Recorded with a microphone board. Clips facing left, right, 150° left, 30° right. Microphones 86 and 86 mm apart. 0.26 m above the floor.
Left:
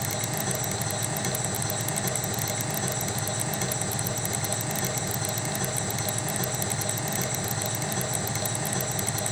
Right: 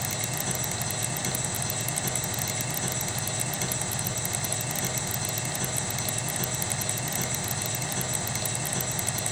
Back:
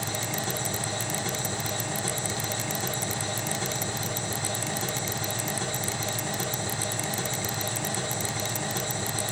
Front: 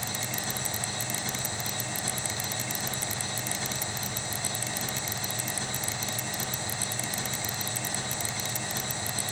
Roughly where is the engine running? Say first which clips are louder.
Left 3 dB, back 4 dB; behind left.